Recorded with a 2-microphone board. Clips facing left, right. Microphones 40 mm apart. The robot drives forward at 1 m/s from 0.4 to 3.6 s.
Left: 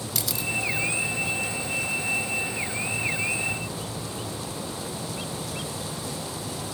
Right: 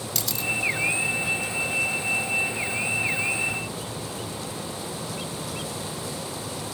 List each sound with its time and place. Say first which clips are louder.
0.1 s a camera shutter: right 2 dB; 5° left (ahead or behind), 0.7 m